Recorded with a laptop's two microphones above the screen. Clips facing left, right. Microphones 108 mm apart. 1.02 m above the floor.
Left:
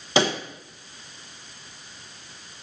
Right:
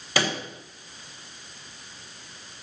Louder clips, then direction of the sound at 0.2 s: Left 5 dB; 20° left (ahead or behind).